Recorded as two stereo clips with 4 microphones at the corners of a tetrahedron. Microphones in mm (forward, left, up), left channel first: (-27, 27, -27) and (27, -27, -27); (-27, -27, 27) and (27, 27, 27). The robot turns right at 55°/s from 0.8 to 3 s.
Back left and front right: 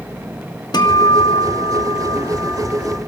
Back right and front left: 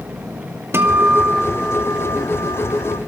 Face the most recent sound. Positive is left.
turn(degrees=-135)